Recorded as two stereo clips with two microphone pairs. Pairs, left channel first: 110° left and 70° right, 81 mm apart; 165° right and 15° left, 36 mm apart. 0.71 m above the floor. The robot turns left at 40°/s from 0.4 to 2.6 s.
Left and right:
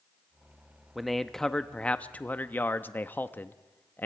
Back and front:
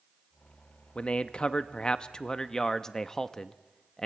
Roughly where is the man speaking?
Behind right.